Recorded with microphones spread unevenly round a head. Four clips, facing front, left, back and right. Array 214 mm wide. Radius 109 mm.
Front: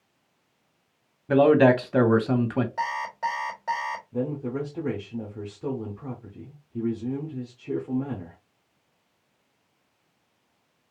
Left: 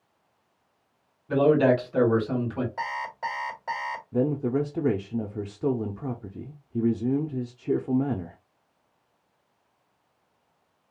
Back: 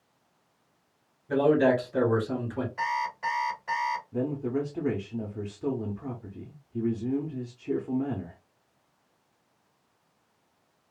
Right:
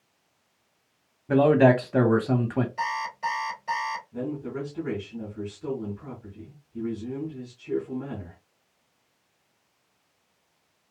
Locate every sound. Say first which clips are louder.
1.3 s a man speaking: right 2 dB, front 5 dB; 30° right, 1.4 m
2.8 s an alarm clock: right 2 dB, front 1 dB; 30° left, 3 m
4.1 s a man speaking: left 7 dB, front 3 dB; 80° left, 0.8 m